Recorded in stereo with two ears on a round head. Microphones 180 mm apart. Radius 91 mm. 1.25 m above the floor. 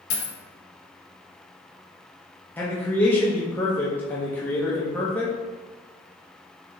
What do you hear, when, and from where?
0.1 s a dropped coin: 55° left (ahead or behind), 0.9 m
2.6 s a man speaking: 10° left (ahead or behind), 0.6 m